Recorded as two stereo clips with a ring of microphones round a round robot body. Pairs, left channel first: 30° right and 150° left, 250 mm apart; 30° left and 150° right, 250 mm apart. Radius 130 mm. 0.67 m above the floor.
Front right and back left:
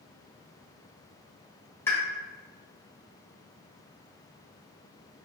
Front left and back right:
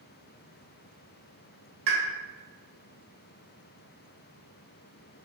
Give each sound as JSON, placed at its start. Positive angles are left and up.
{"t": 1.9, "sound": "a pop", "azimuth_deg": -110, "distance_m": 1.6}